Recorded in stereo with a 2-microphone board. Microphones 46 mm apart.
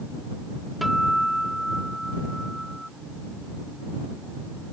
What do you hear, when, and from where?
0.8 s a guitar: centre (ahead or behind)